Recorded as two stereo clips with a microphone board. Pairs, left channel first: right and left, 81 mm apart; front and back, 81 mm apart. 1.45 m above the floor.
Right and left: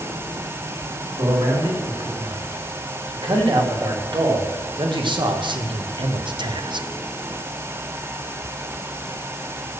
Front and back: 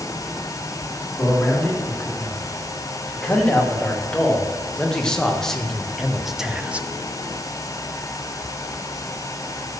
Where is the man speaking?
70° left, 3.5 m; by 6.9 s 110° left, 0.6 m.